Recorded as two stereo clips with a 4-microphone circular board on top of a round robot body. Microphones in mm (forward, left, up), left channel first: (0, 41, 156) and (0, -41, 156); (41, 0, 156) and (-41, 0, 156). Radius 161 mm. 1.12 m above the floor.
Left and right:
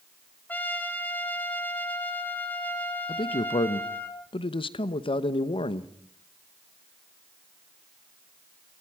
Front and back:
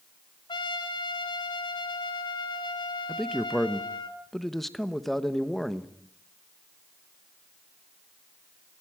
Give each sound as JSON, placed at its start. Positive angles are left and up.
{"t": 0.5, "sound": "a trumpet", "azimuth_deg": 20, "distance_m": 3.5}
{"t": 3.1, "sound": "a man speaking", "azimuth_deg": 85, "distance_m": 1.0}